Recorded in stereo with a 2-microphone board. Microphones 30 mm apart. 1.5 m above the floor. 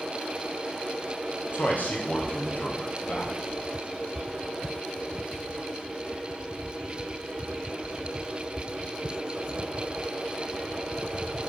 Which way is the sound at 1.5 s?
60° left (ahead or behind).